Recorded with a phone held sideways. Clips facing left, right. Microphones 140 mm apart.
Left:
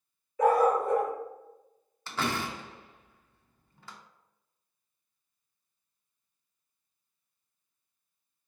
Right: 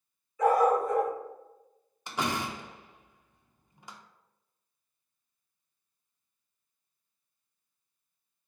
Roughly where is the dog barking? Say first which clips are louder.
Even; left.